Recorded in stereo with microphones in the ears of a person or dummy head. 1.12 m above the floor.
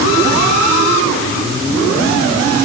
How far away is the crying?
No crying in this recording.